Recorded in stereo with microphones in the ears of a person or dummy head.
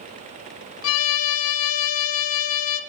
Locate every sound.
0.8 s a violin: 75° left (ahead or behind), 0.7 m